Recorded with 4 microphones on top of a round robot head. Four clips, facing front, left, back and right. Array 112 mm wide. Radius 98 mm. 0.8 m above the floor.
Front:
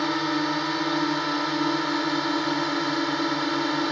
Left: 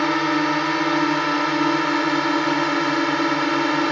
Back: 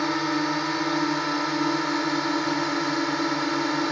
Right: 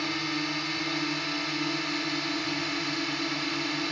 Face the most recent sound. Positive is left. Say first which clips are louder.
# left 12 dB, even
turn(degrees=90)